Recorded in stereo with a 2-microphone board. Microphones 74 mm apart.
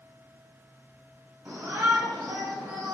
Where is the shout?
45° right (ahead or behind), 3 m; by 3.0 s 70° right (ahead or behind), 3 m.